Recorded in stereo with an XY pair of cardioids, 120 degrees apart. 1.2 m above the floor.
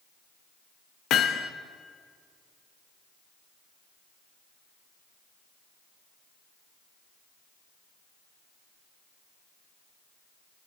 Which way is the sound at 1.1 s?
70° left.